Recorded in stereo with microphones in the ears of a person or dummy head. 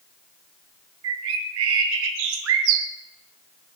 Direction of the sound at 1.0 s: 70° right (ahead or behind).